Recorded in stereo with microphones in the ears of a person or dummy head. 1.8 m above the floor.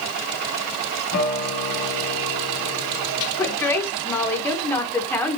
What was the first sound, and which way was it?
A guitar, 60° left (ahead or behind).